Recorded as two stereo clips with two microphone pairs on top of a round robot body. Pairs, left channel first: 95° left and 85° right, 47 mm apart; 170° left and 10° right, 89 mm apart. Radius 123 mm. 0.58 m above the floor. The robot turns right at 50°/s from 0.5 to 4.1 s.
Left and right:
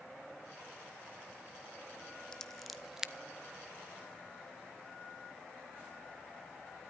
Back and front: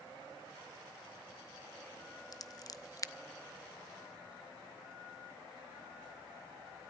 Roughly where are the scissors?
Behind.